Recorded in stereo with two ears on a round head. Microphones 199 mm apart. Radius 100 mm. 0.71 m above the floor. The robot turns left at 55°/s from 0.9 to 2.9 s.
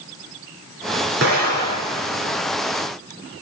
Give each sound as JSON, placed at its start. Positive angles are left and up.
{"t": 1.2, "sound": "an explosion", "azimuth_deg": -125, "distance_m": 4.0}